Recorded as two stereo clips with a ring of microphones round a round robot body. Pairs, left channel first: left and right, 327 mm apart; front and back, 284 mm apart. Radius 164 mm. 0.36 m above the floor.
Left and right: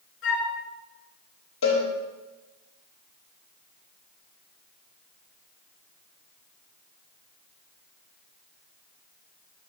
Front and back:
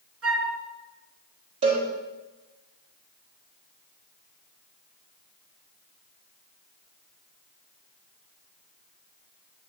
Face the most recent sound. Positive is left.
turn(degrees=145)